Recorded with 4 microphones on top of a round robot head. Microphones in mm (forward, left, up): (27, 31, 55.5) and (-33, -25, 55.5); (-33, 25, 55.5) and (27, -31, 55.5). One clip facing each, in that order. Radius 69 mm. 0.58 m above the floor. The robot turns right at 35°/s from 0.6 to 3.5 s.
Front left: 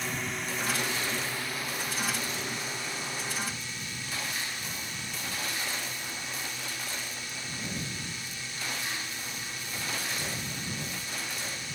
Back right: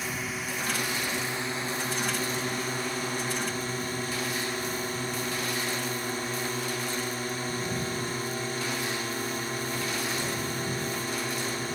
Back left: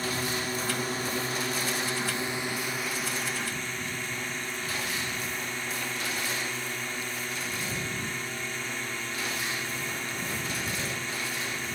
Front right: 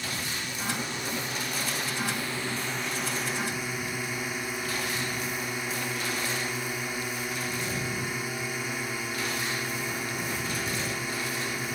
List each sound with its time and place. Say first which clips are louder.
0.0 s a drone: back right 1 dB, back left 4 dB; 140° left; by 11.8 s 120° right